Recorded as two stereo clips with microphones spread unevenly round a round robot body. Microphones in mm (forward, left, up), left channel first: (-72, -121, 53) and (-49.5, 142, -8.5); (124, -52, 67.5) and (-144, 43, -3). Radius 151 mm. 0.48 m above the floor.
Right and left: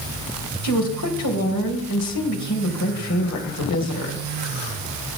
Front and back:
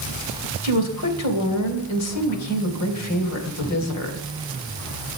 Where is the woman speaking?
55° right, 3 m.